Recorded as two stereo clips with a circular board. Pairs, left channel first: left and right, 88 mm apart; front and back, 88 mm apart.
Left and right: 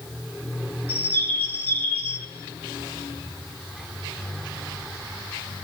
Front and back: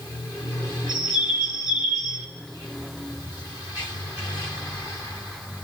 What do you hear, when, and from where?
0.9 s a bird: 155° right, 3 m